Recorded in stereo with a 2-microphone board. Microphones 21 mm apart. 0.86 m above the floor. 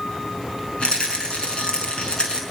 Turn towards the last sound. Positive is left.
turn(degrees=50)  # may be behind; listen again after turning